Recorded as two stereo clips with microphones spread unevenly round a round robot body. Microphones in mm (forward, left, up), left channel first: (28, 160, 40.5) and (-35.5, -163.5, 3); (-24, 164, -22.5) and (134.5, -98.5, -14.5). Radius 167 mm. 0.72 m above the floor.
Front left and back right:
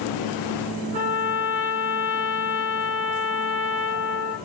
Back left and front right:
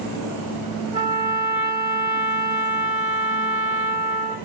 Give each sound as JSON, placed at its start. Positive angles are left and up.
{"t": 0.9, "sound": "a trumpet", "azimuth_deg": -140, "distance_m": 2.0}